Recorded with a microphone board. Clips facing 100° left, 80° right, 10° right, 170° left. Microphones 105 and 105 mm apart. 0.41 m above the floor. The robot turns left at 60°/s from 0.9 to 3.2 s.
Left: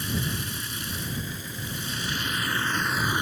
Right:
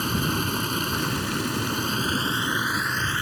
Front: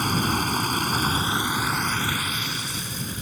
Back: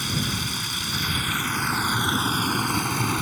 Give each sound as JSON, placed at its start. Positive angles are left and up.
{"t": 0.0, "sound": "running water", "azimuth_deg": -50}